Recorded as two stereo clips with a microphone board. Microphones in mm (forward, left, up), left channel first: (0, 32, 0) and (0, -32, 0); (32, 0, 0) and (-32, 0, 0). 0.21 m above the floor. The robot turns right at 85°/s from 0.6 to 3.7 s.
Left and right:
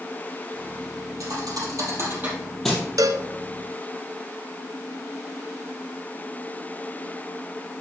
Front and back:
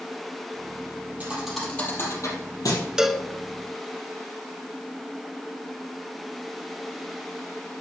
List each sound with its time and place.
1.2 s a thud: 120° right, 3 m; by 2.9 s 25° left, 3 m
3.0 s a cowbell: 100° right, 0.6 m; by 3.3 s 75° right, 0.6 m